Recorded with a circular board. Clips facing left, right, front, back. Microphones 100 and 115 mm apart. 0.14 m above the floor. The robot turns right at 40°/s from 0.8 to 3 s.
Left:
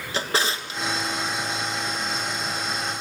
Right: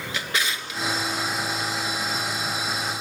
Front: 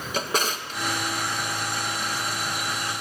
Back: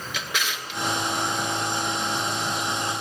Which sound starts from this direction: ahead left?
A drawer, at 0.1 s.